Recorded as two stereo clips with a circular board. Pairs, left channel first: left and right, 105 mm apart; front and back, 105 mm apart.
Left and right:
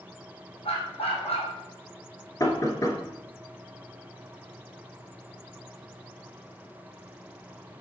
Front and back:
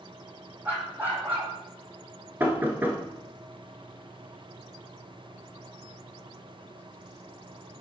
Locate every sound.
0.7 s a dog barking: 105° left, 1.6 m
2.4 s knocking: 120° left, 1.2 m